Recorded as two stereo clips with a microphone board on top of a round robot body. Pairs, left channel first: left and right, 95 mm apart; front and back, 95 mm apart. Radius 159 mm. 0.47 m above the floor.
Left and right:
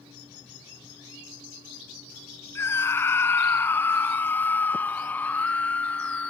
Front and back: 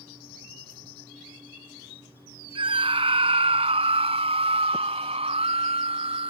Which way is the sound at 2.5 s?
155° left.